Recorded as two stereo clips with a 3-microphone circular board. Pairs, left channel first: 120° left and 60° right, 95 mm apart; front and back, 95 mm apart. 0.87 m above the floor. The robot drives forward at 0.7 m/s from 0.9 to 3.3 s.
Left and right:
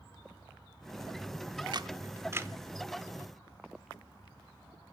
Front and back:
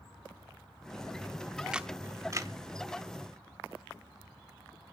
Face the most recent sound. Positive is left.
turn(degrees=-145)